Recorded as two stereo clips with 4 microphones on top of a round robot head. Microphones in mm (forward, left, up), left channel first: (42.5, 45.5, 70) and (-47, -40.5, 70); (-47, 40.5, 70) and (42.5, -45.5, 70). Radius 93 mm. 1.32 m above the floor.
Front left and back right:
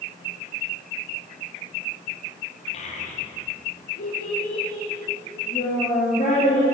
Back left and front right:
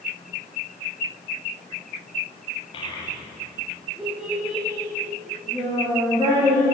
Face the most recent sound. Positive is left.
turn(degrees=20)